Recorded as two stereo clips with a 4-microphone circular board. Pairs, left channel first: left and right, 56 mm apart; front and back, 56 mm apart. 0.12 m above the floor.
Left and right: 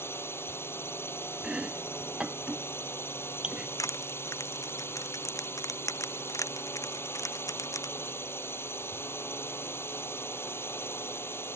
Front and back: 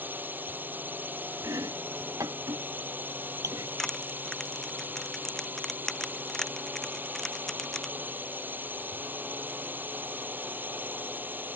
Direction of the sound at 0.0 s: 125° left.